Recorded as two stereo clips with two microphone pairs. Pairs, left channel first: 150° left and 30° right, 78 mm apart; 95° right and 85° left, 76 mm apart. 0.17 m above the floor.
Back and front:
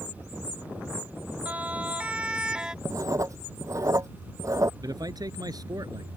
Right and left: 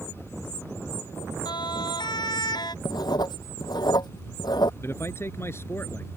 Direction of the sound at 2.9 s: 75° right.